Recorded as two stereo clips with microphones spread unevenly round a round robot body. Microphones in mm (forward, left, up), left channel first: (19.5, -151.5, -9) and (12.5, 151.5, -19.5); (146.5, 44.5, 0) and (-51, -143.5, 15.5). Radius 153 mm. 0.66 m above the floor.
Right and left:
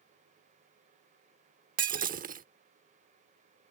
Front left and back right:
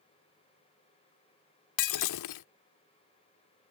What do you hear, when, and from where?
1.8 s breaking glass: 25° left